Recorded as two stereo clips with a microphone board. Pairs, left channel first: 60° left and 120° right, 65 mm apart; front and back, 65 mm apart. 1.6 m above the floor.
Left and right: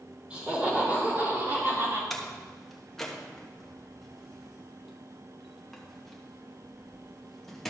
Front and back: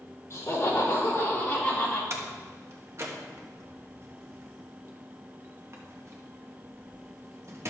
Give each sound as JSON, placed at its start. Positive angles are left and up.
{"t": 0.3, "sound": "laughter", "azimuth_deg": -45, "distance_m": 4.5}
{"t": 2.1, "sound": "a door slam", "azimuth_deg": 145, "distance_m": 1.3}